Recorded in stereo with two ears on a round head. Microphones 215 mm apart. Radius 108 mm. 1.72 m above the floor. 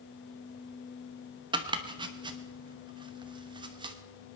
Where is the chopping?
20° right (ahead or behind), 1.0 m.